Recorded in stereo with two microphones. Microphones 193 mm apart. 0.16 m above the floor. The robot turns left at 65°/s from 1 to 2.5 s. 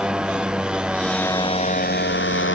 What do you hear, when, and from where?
0.0 s a motorcycle: 175° right; by 2.5 s 85° left